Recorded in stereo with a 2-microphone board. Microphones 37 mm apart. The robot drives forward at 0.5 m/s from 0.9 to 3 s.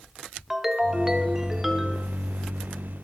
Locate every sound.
0.5 s a ringtone: 10° right (ahead or behind), 1.0 m; by 2.1 s 5° right (ahead or behind), 1.6 m